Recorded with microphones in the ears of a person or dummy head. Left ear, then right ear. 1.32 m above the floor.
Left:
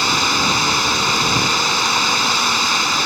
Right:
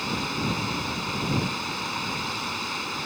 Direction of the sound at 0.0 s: 50° left (ahead or behind).